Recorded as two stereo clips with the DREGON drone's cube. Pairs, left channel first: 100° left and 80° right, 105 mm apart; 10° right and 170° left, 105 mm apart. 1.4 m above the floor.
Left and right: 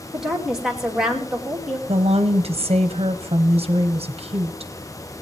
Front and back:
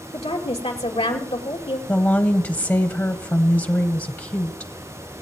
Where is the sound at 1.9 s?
80° right, 0.7 m.